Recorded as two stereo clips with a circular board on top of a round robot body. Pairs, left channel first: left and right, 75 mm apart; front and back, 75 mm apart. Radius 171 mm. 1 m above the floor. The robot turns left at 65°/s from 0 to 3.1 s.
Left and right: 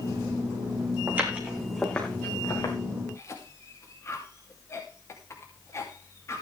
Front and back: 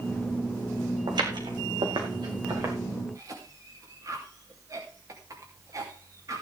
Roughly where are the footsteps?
Behind right.